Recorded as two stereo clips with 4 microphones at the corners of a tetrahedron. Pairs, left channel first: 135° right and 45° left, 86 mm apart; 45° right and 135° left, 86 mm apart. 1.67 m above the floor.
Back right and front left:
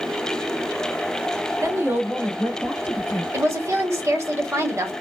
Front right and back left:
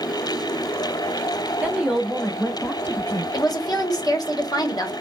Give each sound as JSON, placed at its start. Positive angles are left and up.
{"t": 1.6, "sound": "a woman speaking", "azimuth_deg": 65, "distance_m": 0.8}
{"t": 3.3, "sound": "a woman speaking", "azimuth_deg": -10, "distance_m": 0.9}